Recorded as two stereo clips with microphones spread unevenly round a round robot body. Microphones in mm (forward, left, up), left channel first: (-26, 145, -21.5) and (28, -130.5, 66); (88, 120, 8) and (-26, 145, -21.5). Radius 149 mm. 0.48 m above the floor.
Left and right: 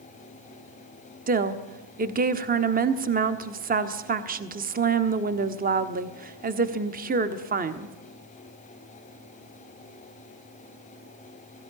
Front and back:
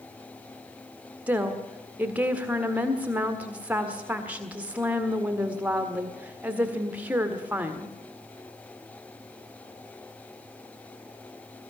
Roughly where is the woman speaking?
Behind right.